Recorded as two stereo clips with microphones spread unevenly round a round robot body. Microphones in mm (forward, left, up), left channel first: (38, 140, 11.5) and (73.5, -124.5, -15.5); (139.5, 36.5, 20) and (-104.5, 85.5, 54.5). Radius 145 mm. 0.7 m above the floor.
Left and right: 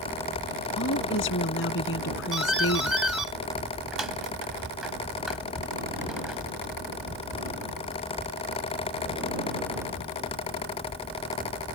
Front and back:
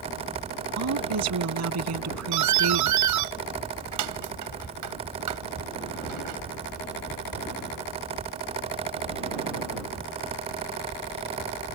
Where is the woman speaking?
150° left.